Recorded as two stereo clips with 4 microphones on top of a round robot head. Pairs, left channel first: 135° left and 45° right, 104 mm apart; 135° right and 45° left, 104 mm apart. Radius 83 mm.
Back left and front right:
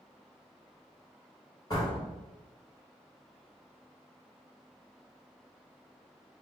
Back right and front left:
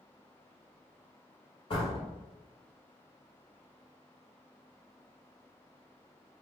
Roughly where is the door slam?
Behind.